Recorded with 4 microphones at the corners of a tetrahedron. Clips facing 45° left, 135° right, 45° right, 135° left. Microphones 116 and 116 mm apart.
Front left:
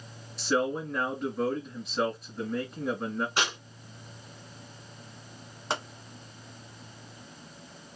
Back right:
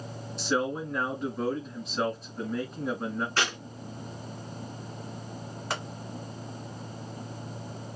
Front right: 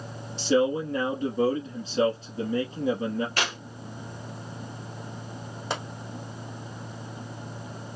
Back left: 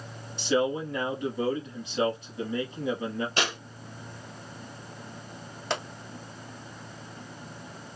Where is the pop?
20° left, 1.2 m.